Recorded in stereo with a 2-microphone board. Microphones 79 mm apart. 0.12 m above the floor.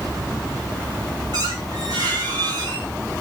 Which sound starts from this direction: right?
A squeak, at 1.3 s.